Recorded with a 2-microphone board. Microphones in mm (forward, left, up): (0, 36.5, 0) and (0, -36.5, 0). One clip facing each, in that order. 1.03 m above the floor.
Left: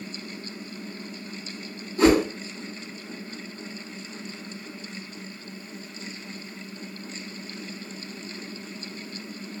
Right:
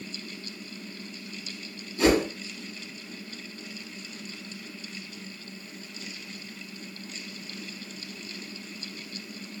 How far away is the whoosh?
About 1.6 m.